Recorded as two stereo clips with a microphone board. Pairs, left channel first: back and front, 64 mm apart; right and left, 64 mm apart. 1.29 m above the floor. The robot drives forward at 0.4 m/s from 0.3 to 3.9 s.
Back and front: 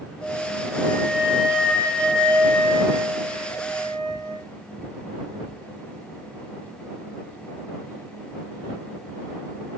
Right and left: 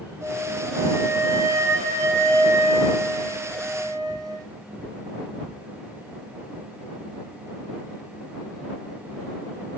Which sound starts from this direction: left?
A flute, at 0.2 s.